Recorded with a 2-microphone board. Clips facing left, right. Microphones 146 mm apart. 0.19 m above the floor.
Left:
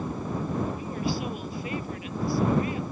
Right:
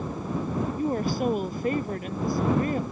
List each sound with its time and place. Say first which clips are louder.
0.8 s a woman speaking: right 5 dB; 50° right (ahead or behind)